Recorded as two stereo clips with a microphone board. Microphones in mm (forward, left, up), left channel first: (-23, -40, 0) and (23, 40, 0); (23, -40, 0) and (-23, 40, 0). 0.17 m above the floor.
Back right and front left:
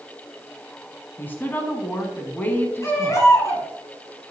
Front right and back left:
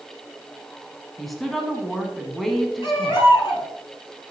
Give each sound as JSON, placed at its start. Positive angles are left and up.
{"t": 1.2, "sound": "a woman speaking", "azimuth_deg": -145, "distance_m": 1.5}
{"t": 2.8, "sound": "a baby crying", "azimuth_deg": -65, "distance_m": 4.0}